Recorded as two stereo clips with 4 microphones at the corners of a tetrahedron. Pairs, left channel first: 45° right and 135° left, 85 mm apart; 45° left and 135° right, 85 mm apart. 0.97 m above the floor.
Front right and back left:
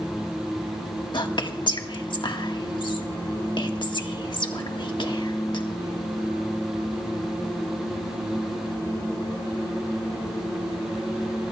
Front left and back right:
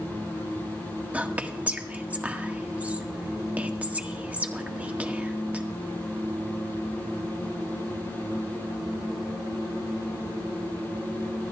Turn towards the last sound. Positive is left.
turn(degrees=-65)